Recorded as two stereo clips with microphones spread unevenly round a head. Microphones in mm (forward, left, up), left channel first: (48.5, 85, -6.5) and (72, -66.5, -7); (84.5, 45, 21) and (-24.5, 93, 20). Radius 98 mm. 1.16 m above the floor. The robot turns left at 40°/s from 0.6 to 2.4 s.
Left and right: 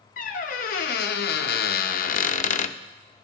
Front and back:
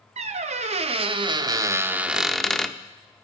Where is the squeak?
135° left, 0.6 m; by 2.8 s 65° left, 0.6 m.